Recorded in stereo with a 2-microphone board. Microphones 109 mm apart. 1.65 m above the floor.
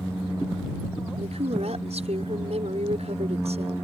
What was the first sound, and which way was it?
A woman speaking, 80° right.